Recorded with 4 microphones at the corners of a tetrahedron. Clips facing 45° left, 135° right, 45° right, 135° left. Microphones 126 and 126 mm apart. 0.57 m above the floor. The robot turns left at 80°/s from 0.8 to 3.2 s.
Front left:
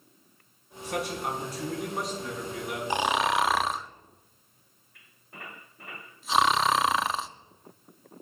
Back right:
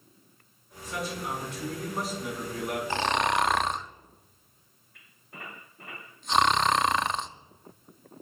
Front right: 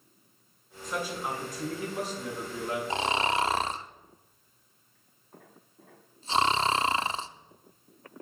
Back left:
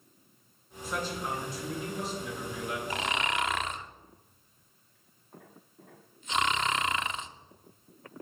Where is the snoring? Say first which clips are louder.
Front left 2 dB, front right 5 dB; 15° right, 0.6 m; by 7.3 s 40° right, 0.6 m.